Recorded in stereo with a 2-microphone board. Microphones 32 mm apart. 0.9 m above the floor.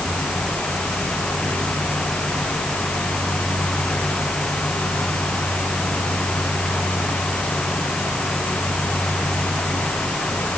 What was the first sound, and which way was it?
Only background noise.